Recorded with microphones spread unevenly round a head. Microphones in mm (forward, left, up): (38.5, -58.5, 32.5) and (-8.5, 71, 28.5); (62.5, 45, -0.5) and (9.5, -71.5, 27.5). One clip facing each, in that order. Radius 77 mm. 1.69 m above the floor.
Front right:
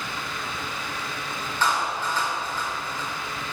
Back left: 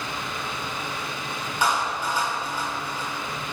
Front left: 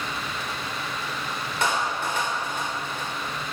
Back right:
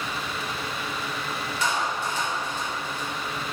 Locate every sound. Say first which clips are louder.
1.6 s a clap: back left 1 dB, front left 2 dB; 30° left, 5.5 m